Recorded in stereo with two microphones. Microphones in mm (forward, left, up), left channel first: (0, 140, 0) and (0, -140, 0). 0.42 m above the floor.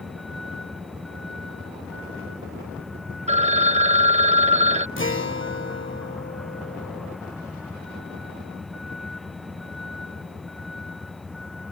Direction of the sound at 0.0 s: Centre (ahead or behind).